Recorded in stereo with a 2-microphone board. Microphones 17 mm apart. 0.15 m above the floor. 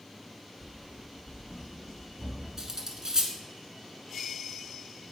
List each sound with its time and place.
0.6 s running footsteps: 70° right (ahead or behind), 1.1 m; by 2.5 s 50° right (ahead or behind), 3.5 m
2.6 s cutlery clinking: 40° right (ahead or behind), 1.0 m